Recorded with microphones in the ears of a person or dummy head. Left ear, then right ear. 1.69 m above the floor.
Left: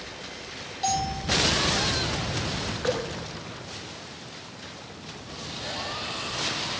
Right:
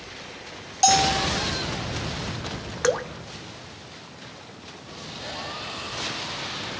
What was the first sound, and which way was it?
A bell, 45° right (ahead or behind).